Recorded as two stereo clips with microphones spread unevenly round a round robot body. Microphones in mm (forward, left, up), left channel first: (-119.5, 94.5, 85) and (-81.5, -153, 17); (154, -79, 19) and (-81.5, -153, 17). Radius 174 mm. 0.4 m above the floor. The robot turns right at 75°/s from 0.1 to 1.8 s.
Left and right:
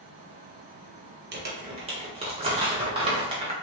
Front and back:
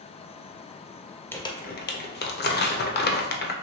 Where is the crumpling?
65° right, 0.6 m; by 3.5 s 30° right, 0.6 m.